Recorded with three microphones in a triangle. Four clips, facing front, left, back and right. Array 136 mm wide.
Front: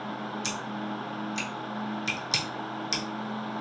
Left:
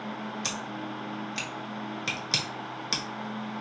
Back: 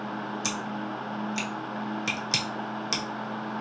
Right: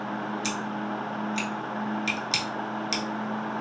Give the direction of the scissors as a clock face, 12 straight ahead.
7 o'clock.